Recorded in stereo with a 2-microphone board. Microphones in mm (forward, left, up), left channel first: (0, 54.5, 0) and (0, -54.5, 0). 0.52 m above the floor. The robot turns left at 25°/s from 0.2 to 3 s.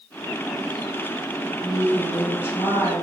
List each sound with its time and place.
1.6 s a woman speaking: 170° left, 1.7 m; by 3.0 s 135° left, 1.7 m